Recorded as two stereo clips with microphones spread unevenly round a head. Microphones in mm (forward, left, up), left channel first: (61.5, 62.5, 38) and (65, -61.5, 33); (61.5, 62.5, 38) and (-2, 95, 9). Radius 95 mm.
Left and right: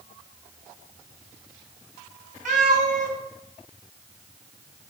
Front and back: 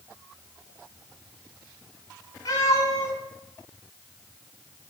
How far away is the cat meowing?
About 4.5 m.